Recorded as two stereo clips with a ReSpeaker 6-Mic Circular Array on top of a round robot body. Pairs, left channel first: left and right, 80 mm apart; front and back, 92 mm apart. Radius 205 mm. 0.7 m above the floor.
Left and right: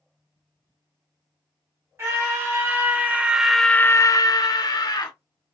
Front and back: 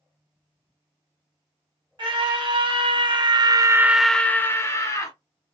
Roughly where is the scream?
Behind right.